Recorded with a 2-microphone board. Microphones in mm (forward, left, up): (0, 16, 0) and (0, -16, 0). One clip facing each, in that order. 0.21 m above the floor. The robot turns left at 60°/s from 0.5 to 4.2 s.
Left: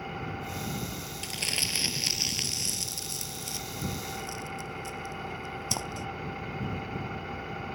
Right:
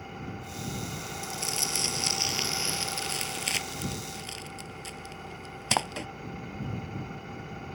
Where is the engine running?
20° left; by 7.8 s 160° left.